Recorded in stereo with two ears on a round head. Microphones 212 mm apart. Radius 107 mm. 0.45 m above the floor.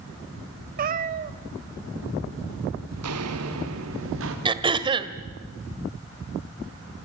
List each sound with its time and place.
0.8 s a cat meowing: 40° right (ahead or behind), 1.2 m
2.9 s footsteps: 75° right (ahead or behind), 3.5 m; by 4.3 s 55° right (ahead or behind), 4.5 m
4.5 s throat clearing: 20° right (ahead or behind), 1.4 m